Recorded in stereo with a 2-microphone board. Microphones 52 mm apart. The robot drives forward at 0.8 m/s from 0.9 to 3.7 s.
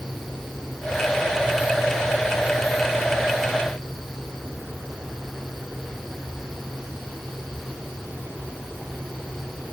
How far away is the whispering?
No whispering in this recording.